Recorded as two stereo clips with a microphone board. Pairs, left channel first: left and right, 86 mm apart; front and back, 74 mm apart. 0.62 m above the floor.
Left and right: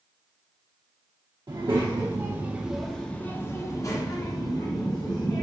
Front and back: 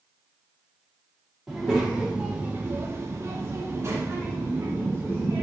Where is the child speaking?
95° right, 0.8 m; by 5.4 s 125° left, 1.6 m.